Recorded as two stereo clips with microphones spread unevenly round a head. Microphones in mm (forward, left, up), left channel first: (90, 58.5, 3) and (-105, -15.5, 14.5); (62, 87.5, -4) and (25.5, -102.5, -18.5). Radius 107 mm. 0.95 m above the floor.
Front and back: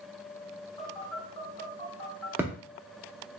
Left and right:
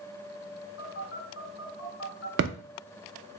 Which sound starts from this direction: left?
A phone buzzing, at 0.8 s.